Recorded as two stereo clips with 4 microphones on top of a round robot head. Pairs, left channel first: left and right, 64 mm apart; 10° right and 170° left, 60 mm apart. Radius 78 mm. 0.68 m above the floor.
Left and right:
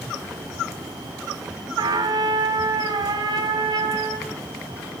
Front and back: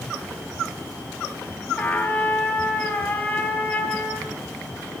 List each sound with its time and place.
1.8 s a trumpet: 80° right, 3 m